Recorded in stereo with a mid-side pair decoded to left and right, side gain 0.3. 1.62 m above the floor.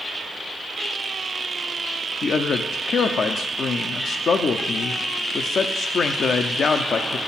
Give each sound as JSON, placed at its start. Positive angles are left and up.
{"t": 2.2, "sound": "a man speaking", "azimuth_deg": 70, "distance_m": 0.6}